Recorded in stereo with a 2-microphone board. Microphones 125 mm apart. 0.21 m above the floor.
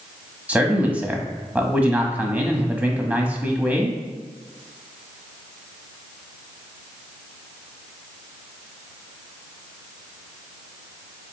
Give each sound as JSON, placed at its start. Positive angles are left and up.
{"t": 0.5, "sound": "a man speaking", "side_deg": -10, "distance_m": 1.0}